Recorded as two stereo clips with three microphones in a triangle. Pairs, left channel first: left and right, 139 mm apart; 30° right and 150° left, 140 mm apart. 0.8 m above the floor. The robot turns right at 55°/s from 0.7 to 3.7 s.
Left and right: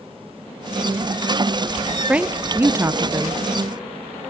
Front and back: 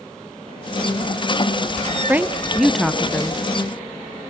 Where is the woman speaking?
155° right, 0.6 m; by 3.4 s 85° right, 0.6 m.